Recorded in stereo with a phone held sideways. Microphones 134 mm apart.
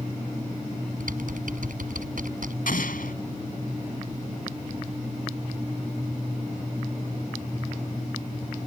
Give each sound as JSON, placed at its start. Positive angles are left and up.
{"t": 1.0, "sound": "typing on a keyboard", "side_deg": -70}
{"t": 2.7, "sound": "an explosion", "side_deg": 80}